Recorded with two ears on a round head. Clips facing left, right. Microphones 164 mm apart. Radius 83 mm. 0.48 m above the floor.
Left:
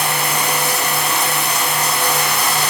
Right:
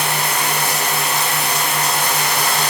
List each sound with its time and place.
0.0 s running water: 75° left (ahead or behind), 1.6 m